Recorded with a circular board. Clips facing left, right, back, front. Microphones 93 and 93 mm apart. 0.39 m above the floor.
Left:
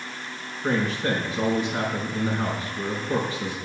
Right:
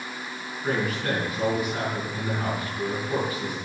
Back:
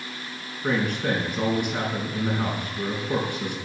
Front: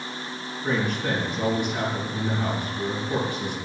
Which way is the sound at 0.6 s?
150° left.